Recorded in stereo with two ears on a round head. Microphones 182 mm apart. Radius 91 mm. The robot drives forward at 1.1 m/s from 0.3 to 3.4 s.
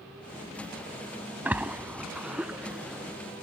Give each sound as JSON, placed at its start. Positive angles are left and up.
{"t": 1.4, "sound": "a splash", "side_deg": -10}